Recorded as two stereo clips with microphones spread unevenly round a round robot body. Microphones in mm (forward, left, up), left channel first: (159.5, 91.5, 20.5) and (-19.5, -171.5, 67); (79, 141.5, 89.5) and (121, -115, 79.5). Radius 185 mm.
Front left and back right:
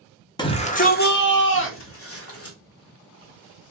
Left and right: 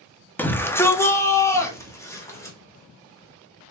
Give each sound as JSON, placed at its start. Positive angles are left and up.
{"t": 0.4, "sound": "a shout", "azimuth_deg": 20, "distance_m": 0.6}